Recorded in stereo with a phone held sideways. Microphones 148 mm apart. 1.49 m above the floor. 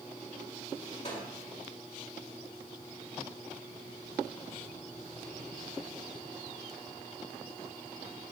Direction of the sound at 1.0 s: 50° left (ahead or behind).